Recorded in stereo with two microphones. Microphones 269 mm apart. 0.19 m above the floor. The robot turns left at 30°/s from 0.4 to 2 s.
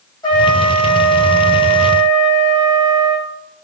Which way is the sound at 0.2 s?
165° left.